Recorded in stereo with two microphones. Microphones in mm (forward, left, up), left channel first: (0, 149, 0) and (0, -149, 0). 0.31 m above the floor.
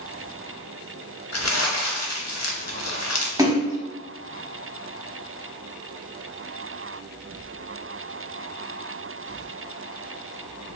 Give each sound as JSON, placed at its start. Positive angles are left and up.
{"t": 1.3, "sound": "crumpling", "side_deg": 60, "distance_m": 0.8}
{"t": 3.4, "sound": "a splash", "side_deg": -10, "distance_m": 1.0}